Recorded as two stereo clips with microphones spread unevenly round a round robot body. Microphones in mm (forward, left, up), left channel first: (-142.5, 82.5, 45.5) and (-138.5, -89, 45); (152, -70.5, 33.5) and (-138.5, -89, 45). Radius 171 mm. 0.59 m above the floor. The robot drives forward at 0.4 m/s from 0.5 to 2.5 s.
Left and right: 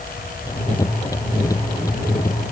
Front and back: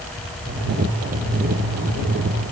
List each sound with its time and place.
Only background noise.